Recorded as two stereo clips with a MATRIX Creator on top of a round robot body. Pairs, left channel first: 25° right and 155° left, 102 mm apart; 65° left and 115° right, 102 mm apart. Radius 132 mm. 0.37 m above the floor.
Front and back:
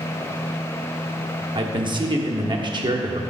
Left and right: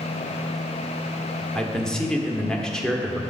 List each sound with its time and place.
1.6 s a man speaking: 150° left, 1.2 m